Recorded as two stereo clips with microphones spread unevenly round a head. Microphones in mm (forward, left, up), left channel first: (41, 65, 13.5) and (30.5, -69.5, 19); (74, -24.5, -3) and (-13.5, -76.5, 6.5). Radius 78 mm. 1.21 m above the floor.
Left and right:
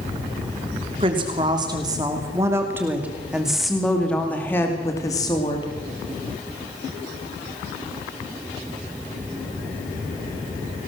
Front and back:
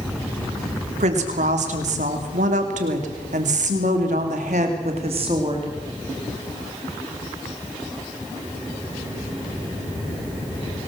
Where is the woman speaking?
155° right, 3 m; by 5.7 s 145° left, 2.5 m.